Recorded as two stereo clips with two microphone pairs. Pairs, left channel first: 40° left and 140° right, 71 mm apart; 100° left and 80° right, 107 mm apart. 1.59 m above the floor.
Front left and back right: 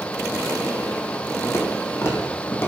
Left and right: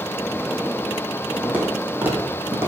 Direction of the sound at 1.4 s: 5° right.